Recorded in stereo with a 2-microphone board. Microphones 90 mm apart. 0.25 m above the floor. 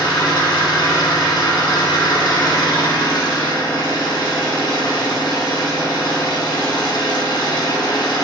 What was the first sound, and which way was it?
An engine running, 65° left (ahead or behind).